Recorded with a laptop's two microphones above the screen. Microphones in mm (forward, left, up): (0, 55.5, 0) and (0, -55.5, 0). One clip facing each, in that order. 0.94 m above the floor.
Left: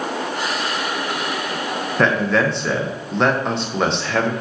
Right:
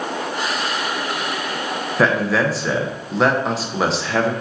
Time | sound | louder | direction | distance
2.0 | a man speaking | even | 5° right (ahead or behind) | 0.5 m